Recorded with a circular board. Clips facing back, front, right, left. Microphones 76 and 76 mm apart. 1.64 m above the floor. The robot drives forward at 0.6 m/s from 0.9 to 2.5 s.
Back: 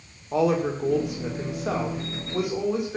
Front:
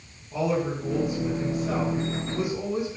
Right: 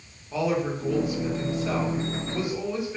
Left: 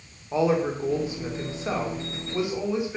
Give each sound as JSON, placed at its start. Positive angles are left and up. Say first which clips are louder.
{"t": 0.3, "sound": "a woman speaking", "louder": "back 4 dB, left 3 dB", "azimuth_deg": 155, "distance_m": 2.5}